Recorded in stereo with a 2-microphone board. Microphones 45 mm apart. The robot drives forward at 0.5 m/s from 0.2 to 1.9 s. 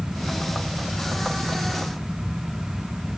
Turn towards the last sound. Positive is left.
No sound to turn to.